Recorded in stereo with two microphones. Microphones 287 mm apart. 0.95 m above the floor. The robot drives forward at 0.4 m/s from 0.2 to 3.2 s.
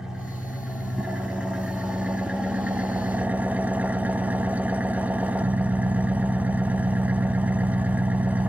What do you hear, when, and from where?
0.0 s an engine running: centre (ahead or behind), 1.9 m; by 8.5 s 5° right (ahead or behind), 0.7 m